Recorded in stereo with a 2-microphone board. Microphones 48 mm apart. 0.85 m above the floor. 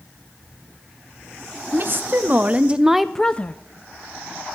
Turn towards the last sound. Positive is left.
turn(degrees=35)  # may be behind; listen again after turning